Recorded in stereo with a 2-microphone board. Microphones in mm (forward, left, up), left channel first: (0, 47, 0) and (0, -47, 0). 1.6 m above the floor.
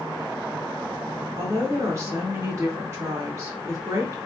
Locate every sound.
1.4 s a woman speaking: 30° right (ahead or behind), 1.4 m